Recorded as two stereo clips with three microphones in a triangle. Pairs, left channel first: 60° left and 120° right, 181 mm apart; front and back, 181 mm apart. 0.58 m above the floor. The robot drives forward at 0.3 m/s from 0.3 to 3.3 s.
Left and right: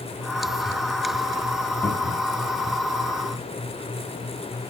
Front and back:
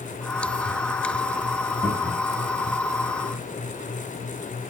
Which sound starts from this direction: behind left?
A cupboard door, at 1.8 s.